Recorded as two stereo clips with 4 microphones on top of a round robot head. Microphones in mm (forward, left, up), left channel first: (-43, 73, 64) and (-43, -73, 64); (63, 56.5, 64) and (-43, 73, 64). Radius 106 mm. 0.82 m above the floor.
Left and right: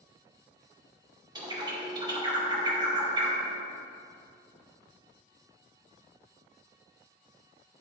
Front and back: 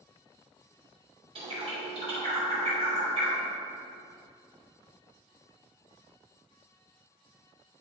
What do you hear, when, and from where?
1.4 s a bird: 150° right, 2.5 m